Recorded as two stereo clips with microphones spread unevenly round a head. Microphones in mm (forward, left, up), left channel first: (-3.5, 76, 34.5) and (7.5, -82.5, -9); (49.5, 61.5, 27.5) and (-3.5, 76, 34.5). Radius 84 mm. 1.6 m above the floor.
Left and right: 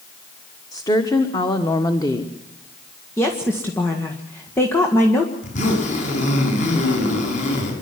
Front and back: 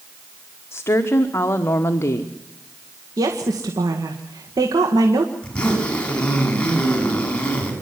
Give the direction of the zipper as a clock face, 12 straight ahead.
10 o'clock.